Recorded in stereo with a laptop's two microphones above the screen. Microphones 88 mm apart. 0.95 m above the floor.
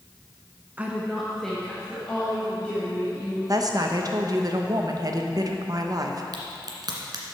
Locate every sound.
0.8 s a woman speaking: 20° right (ahead or behind), 0.7 m; by 3.4 s 15° left (ahead or behind), 4 m
3.5 s a woman speaking: 45° right (ahead or behind), 0.8 m
6.3 s a crack: 55° right (ahead or behind), 1.7 m